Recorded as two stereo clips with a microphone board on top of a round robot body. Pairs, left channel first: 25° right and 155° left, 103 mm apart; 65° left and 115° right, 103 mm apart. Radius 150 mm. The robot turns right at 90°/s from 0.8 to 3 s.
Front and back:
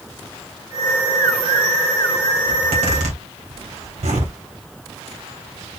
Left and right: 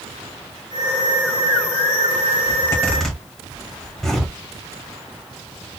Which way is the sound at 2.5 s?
105° left.